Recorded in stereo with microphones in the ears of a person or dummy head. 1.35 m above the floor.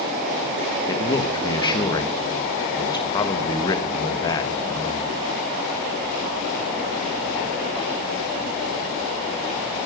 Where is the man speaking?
25° left (ahead or behind), 1.3 m.